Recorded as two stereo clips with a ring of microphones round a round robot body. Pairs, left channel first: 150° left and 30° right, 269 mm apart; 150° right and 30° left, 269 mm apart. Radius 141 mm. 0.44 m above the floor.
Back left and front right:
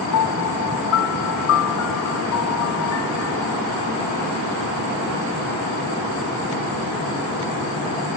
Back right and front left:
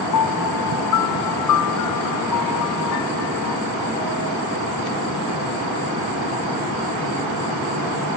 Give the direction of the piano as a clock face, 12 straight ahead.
6 o'clock.